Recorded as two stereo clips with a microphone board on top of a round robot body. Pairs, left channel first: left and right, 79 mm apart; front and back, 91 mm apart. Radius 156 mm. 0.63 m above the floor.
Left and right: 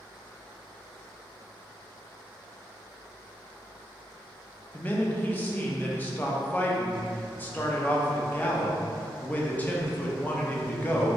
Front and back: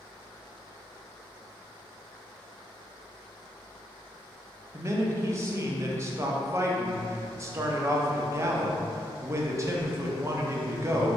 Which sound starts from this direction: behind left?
A man speaking, at 4.7 s.